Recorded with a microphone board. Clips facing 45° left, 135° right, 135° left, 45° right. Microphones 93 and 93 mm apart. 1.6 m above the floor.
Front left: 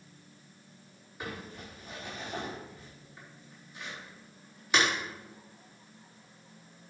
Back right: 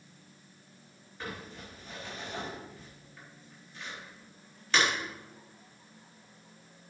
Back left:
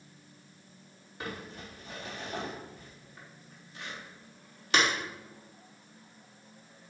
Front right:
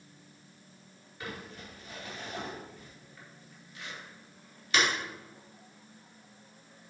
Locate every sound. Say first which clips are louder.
1.2 s crumpling: front left 1 dB, back left 2 dB; 125° left, 4 m